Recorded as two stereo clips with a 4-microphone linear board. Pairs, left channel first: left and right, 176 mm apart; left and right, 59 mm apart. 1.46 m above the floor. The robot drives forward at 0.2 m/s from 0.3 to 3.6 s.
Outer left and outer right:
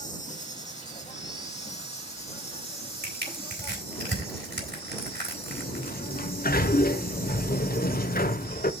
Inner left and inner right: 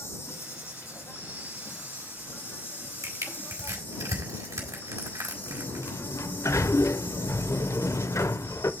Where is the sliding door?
60° left (ahead or behind), 0.5 m.